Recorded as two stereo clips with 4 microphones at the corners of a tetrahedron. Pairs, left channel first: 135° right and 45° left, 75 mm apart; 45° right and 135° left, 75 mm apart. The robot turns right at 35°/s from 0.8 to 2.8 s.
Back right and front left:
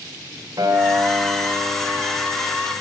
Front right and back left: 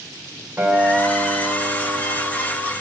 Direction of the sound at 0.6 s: 60° left.